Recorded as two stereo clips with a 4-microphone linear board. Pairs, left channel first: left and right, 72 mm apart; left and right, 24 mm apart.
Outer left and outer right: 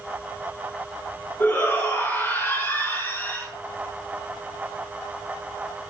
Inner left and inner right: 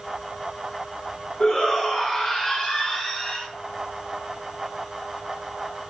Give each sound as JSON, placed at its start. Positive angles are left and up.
{"t": 1.4, "sound": "a shout", "side_deg": 30, "distance_m": 8.0}